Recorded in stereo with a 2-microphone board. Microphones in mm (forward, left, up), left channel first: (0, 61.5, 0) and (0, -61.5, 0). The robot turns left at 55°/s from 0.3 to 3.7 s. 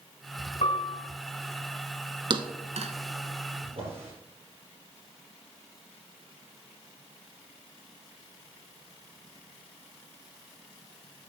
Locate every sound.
0.6 s a piano: 70° left (ahead or behind), 4 m; by 1.0 s 55° left (ahead or behind), 4 m
2.3 s a thud: 40° right (ahead or behind), 1.0 m; by 2.9 s 75° right (ahead or behind), 1.0 m
3.6 s a drawer: 50° right (ahead or behind), 5 m; by 4.1 s 55° right (ahead or behind), 5 m